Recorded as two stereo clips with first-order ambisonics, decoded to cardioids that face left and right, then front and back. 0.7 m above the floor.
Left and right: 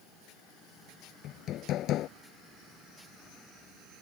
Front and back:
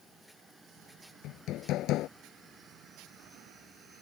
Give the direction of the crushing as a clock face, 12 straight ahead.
No crushing in this recording.